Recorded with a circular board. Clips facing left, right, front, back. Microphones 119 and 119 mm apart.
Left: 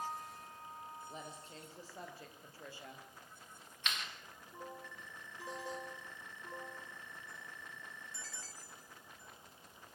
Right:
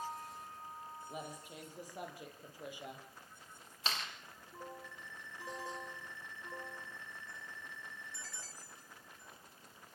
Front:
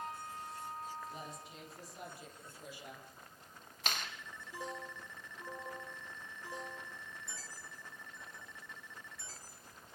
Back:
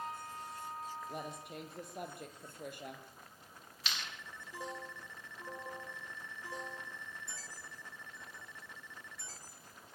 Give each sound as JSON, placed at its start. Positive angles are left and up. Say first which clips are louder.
{"t": 1.1, "sound": "a woman speaking", "louder": "right 3 dB, back 4 dB", "azimuth_deg": -165, "distance_m": 4.0}
{"t": 3.9, "sound": "a clap", "louder": "right 2 dB, front 4 dB", "azimuth_deg": -35, "distance_m": 3.5}